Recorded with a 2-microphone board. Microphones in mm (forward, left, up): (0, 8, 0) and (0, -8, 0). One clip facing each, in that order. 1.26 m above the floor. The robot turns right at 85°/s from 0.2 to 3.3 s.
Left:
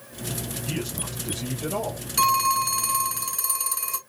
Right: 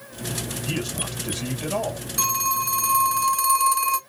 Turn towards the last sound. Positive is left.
turn(degrees=-175)